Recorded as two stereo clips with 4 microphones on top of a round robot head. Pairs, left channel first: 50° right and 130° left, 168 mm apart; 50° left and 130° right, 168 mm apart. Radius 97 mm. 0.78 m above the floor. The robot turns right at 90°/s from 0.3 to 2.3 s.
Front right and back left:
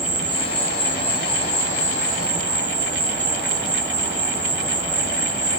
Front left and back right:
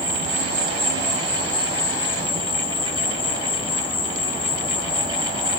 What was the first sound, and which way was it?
An insect, 125° right.